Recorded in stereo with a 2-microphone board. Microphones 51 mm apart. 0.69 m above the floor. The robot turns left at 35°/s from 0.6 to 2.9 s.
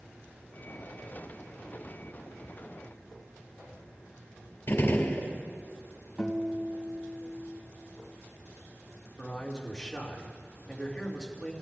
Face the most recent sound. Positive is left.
turn(degrees=15)  # may be behind; listen again after turning